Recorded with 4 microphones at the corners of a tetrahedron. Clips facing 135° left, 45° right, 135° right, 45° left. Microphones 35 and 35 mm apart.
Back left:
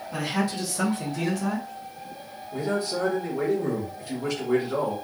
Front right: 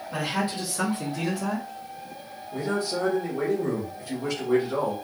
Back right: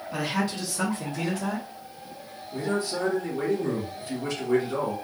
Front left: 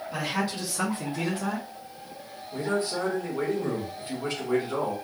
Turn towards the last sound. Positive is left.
turn(degrees=45)